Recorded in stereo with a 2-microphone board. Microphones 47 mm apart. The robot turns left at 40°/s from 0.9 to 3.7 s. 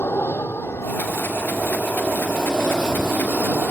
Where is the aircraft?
65° left; by 3.7 s 45° right.